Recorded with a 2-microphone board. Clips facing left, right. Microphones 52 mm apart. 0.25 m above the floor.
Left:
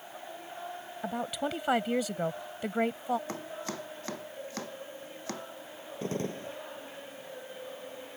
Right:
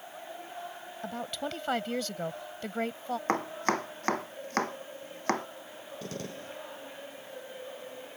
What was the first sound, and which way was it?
A woman speaking, 15° left (ahead or behind).